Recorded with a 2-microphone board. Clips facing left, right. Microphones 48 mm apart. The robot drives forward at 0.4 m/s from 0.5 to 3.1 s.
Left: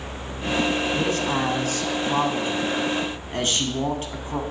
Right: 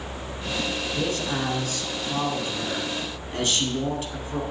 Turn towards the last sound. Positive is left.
turn(degrees=40)  # may be behind; listen again after turning